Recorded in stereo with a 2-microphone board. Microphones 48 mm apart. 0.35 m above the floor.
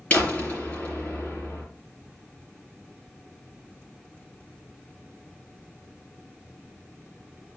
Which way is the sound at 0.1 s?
30° left (ahead or behind).